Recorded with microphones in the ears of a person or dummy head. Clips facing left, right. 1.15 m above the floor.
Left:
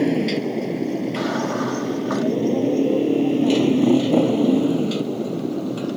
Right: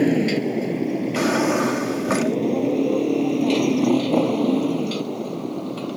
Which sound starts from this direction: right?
A drawer, at 1.1 s.